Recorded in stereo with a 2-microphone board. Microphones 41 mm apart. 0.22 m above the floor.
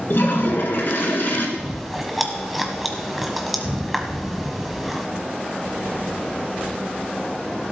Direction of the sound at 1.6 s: Centre (ahead or behind).